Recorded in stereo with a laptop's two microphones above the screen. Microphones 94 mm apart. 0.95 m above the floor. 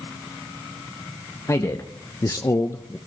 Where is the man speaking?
35° left (ahead or behind), 0.8 m; by 3.0 s 25° left (ahead or behind), 0.5 m.